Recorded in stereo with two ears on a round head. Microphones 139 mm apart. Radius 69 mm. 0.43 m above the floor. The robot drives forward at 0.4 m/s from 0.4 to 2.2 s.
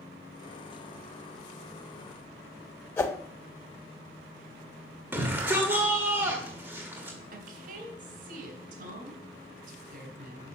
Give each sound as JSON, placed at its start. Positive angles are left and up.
{"t": 3.0, "sound": "a whoosh", "side_deg": 15, "distance_m": 0.5}
{"t": 5.1, "sound": "a shout", "side_deg": -15, "distance_m": 1.6}
{"t": 7.3, "sound": "a woman speaking", "side_deg": -60, "distance_m": 3.5}